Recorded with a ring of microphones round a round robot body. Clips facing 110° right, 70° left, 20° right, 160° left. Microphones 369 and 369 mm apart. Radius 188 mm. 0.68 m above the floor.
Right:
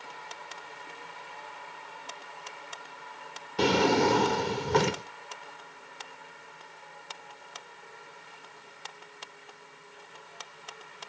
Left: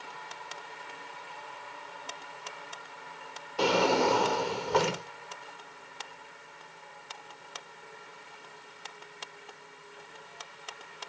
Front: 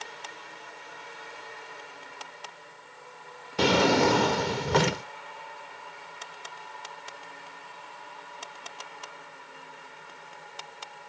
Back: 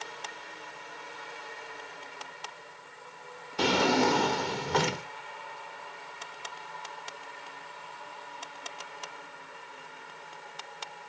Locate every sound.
3.6 s a drawer: 50° right, 0.6 m